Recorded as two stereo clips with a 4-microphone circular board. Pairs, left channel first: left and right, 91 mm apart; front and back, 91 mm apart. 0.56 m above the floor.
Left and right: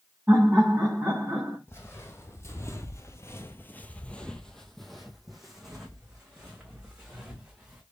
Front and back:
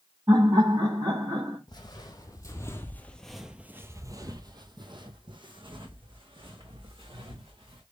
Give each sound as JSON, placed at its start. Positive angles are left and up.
{"t": 0.3, "sound": "laughter", "azimuth_deg": -155, "distance_m": 1.6}
{"t": 1.7, "sound": "footsteps", "azimuth_deg": 30, "distance_m": 1.2}